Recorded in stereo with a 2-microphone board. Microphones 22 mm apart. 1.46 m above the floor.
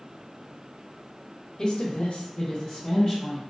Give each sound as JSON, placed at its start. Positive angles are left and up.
{"t": 1.6, "sound": "a woman speaking", "side_deg": 35, "distance_m": 0.9}